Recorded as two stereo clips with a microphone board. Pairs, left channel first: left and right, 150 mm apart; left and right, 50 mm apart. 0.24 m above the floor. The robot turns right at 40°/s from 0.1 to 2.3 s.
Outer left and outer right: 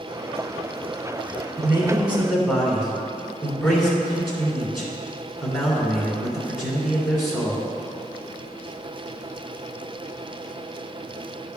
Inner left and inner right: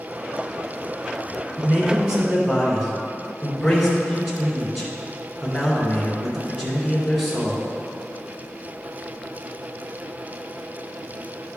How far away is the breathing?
No breathing in this recording.